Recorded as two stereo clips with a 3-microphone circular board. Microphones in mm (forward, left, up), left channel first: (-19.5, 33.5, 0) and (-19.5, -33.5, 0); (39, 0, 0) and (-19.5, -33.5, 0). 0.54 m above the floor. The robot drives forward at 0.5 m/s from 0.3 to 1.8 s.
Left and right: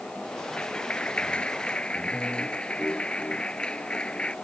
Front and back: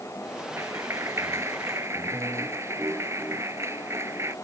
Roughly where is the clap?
Behind.